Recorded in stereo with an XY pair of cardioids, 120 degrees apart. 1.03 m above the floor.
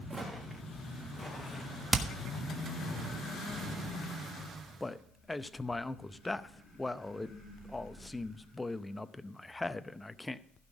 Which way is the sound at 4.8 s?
10° left.